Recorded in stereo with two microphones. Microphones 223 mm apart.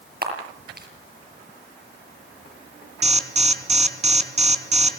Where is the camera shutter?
45° right (ahead or behind), 6.5 m.